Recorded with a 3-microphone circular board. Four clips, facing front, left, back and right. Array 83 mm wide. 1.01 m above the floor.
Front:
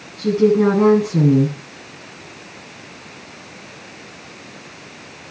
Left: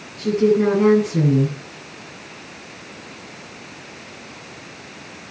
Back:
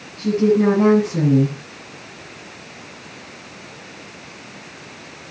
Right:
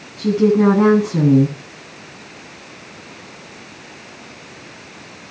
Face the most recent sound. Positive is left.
turn(degrees=-70)